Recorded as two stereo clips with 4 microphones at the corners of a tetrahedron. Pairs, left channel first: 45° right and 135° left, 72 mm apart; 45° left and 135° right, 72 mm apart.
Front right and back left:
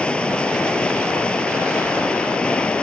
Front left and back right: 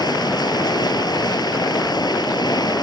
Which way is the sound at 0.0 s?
30° left.